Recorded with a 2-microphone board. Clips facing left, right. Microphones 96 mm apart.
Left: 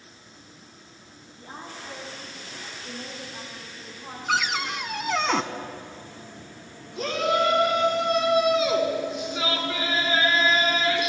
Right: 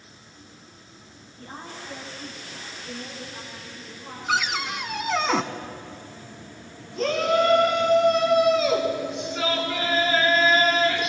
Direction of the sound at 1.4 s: 15° left (ahead or behind).